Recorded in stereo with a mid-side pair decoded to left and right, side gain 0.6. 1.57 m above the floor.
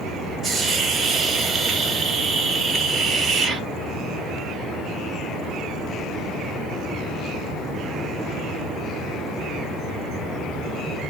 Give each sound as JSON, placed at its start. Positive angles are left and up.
{"t": 0.4, "sound": "a hiss", "azimuth_deg": -25, "distance_m": 1.4}